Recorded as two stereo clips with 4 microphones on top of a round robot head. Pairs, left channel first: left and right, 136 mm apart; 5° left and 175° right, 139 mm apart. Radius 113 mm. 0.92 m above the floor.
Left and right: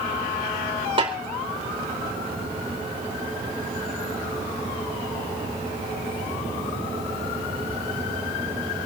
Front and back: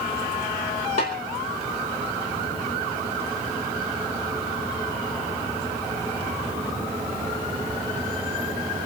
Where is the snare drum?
40° right, 4.5 m.